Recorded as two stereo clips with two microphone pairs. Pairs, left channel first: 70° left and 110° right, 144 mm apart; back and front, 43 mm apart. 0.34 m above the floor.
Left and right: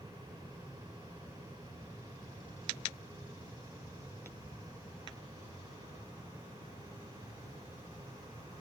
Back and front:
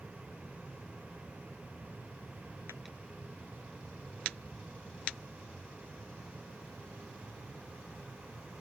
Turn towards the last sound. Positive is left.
No sound to turn to.